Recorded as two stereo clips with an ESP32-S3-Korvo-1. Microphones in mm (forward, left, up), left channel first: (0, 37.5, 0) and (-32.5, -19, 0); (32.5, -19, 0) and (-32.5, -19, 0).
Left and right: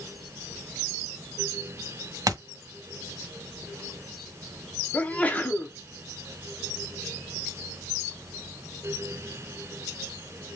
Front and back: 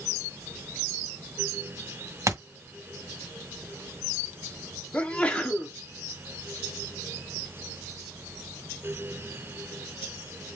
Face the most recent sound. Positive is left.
turn(degrees=35)